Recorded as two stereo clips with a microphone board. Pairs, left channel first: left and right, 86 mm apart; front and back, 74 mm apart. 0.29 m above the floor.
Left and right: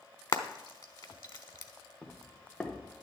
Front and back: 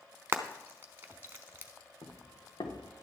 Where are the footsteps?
15° left, 2 m.